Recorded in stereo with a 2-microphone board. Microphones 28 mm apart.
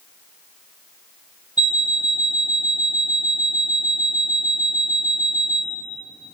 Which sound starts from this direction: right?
An alarm clock, at 1.6 s.